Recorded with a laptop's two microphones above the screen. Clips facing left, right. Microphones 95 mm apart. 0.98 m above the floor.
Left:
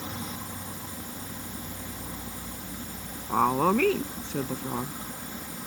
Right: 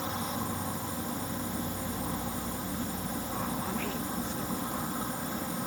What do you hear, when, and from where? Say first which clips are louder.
0.0 s an insect: right 3 dB; 35° right (ahead or behind)
3.3 s a woman speaking: left 15 dB; 85° left